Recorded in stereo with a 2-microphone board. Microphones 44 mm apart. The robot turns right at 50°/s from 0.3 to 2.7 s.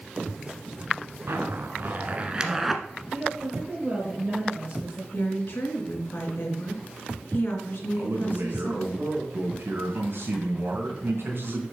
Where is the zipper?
75° right (ahead or behind), 1.1 m; by 2.8 s 5° right (ahead or behind), 1.1 m.